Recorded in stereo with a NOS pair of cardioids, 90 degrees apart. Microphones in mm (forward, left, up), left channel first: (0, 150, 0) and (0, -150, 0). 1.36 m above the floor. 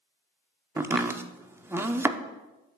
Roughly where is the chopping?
Ahead.